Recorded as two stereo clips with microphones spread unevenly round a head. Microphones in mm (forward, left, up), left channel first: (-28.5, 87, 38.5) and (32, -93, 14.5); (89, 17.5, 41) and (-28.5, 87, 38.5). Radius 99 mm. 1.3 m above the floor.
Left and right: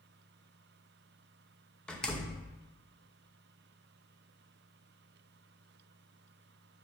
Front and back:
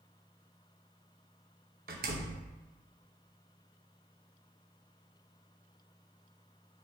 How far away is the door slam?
About 0.9 m.